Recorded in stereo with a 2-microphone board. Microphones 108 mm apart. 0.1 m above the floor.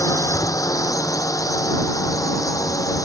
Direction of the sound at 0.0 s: 35° left (ahead or behind).